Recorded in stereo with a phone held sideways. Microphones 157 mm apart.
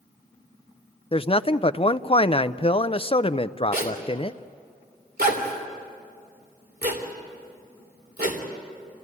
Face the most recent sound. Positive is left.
turn(degrees=-85)